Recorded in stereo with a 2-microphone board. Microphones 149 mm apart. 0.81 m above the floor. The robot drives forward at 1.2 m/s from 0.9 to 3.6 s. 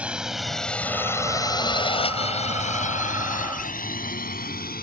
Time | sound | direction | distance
0.0 | a drone | 5° right (ahead or behind) | ?